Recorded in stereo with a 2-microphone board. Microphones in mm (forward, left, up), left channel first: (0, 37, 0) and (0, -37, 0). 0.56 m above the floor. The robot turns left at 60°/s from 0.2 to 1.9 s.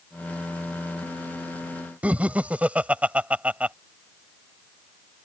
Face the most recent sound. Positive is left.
turn(degrees=-20)  # may be behind; listen again after turning